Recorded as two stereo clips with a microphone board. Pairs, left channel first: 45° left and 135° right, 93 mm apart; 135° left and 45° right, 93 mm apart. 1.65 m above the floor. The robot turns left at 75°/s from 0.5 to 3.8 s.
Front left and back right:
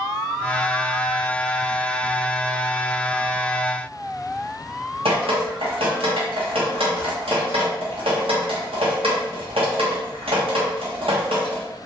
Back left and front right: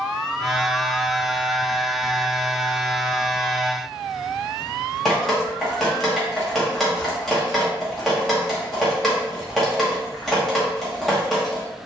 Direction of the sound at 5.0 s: 140° right.